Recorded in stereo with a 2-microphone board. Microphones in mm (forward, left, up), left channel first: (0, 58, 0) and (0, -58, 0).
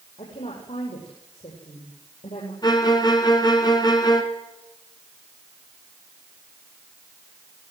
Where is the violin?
35° left (ahead or behind), 2.5 m.